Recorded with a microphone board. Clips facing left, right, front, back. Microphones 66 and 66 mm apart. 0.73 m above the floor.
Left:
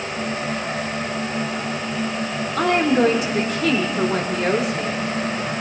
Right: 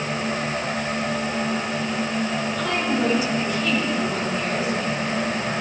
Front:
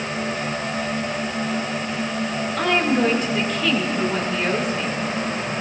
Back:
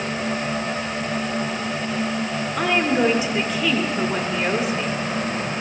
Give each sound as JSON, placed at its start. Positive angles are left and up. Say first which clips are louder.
{"t": 2.6, "sound": "a woman speaking", "louder": "left 8 dB, even", "azimuth_deg": 100, "distance_m": 2.0}